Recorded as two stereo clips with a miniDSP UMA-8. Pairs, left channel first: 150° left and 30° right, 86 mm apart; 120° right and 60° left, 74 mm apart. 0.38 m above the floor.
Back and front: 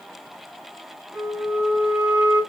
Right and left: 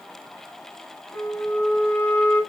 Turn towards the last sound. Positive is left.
turn(degrees=-50)